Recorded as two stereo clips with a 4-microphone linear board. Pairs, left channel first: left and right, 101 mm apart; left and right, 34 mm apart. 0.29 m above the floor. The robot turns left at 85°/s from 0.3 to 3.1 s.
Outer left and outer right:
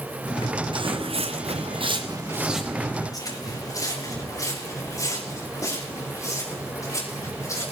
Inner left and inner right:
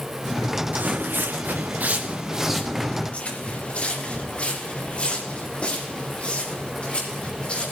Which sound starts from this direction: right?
Footsteps, at 0.7 s.